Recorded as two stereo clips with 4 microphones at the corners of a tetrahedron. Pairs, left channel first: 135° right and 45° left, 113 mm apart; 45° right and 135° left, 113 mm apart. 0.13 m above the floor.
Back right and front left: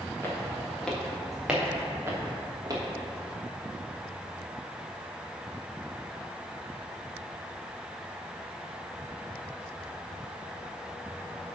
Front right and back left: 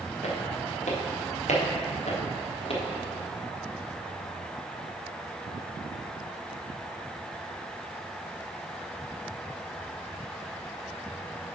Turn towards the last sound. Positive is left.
turn(degrees=-10)